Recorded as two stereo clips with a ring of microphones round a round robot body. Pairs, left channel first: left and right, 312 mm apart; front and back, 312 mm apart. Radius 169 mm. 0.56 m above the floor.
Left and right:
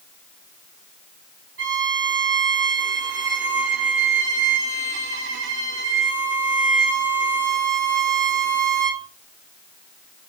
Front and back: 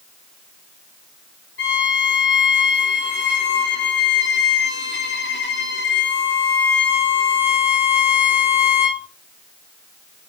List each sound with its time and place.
1.6 s a violin: 45° right, 1.9 m